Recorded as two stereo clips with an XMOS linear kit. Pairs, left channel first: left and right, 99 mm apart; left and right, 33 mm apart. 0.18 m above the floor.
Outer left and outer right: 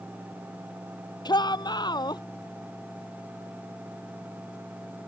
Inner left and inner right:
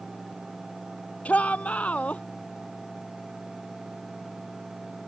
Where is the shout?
50° left (ahead or behind).